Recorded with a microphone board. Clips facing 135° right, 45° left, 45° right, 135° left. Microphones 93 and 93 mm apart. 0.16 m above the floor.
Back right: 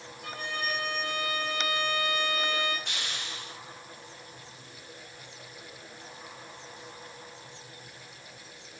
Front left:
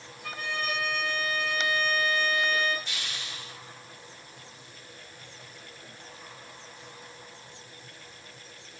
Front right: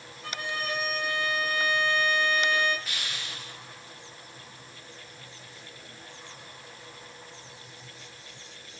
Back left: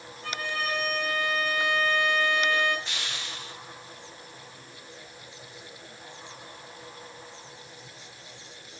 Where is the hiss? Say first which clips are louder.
Back right 1 dB, back left 1 dB; 160° right, 3.5 m.